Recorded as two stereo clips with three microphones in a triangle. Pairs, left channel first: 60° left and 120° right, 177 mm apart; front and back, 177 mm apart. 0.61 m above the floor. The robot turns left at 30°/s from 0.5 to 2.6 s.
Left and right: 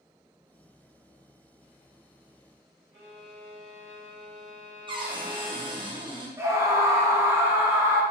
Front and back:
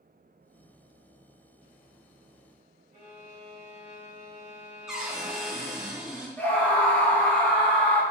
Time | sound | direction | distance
2.9 | a violin | 135° right | 0.9 m
4.9 | a cupboard door | 95° right | 0.6 m
6.4 | a scream | 70° right | 0.6 m